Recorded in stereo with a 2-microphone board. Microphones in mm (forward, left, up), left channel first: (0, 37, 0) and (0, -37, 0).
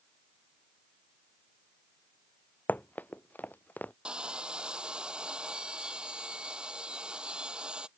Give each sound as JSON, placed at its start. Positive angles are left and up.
{"t": 2.7, "sound": "running footsteps", "side_deg": 20}
{"t": 4.0, "sound": "sawing", "side_deg": -15}